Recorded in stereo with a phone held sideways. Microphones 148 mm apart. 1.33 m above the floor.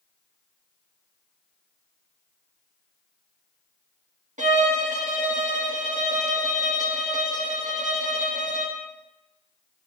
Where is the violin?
55° right (ahead or behind), 1.9 m.